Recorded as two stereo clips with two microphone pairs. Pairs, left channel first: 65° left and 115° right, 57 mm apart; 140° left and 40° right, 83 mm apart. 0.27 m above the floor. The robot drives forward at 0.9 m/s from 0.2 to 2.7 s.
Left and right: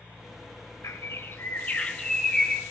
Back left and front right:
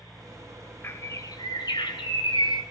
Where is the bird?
80° left, 0.9 m; by 2.6 s 150° left, 1.7 m.